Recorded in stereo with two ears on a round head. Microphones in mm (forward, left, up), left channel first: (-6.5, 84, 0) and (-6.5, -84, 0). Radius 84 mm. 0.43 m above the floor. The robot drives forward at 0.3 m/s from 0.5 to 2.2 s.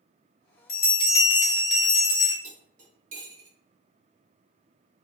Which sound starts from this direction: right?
Cutlery clinking, at 2.4 s.